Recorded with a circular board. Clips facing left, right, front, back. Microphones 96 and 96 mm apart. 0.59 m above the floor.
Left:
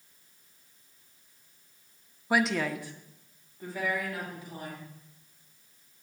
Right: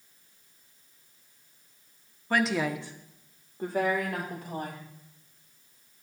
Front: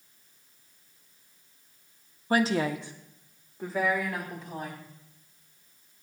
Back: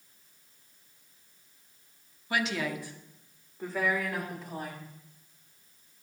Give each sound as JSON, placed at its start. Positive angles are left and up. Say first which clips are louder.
{"t": 2.3, "sound": "a woman speaking", "louder": "even, front 6 dB", "azimuth_deg": 20, "distance_m": 0.7}